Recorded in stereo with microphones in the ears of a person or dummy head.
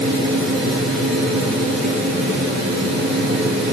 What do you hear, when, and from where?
0.0 s a fan: 70° right (ahead or behind), 5 m